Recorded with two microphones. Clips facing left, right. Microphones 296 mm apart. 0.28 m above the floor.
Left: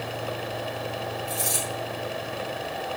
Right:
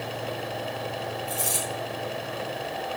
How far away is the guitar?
I don't hear a guitar.